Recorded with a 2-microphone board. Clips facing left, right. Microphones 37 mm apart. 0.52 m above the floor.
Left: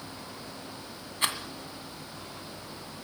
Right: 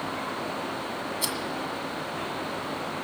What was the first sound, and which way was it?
A rattle, 40° left (ahead or behind).